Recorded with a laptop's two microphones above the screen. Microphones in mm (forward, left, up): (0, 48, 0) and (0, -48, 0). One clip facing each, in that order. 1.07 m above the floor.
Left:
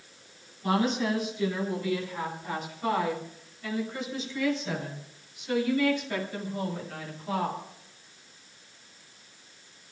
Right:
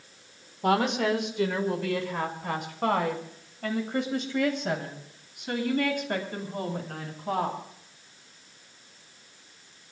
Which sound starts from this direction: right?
A woman speaking, at 0.6 s.